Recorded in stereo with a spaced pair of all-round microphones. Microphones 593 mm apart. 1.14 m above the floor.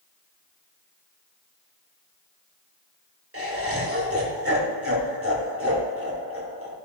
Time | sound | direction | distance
3.3 | laughter | 20° right (ahead or behind) | 1.9 m